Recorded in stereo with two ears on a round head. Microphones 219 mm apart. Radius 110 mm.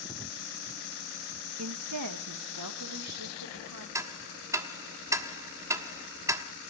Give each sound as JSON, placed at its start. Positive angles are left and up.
{"t": 1.6, "sound": "a woman speaking", "side_deg": -65, "distance_m": 0.9}
{"t": 4.0, "sound": "ticking", "side_deg": -15, "distance_m": 1.2}